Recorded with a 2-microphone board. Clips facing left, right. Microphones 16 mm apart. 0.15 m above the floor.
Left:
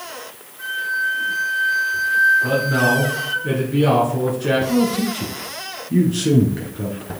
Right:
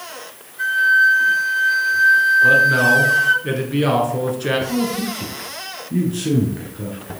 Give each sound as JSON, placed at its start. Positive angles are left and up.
{"t": 0.6, "sound": "a flute", "side_deg": -50, "distance_m": 4.5}
{"t": 2.4, "sound": "a man speaking", "side_deg": -25, "distance_m": 2.5}
{"t": 4.7, "sound": "a man speaking", "side_deg": 15, "distance_m": 1.7}